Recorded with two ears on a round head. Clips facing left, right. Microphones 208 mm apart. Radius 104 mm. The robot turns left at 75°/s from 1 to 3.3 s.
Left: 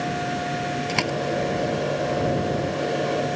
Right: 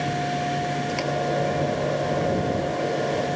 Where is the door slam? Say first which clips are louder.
Even; 80° left; by 1.1 s 90° left.